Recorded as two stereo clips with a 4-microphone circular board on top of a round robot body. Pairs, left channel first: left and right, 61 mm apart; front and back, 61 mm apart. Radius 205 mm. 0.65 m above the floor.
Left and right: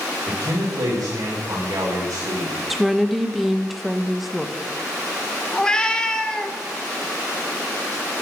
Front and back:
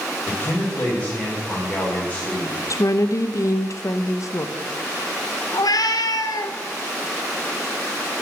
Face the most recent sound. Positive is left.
turn(degrees=15)